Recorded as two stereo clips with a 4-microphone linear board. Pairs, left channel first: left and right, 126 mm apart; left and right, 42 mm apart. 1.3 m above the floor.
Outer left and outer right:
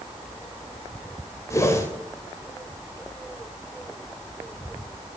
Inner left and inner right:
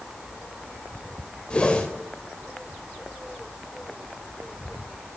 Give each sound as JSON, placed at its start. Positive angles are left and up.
{"t": 1.5, "sound": "a whoosh", "side_deg": 25, "distance_m": 2.0}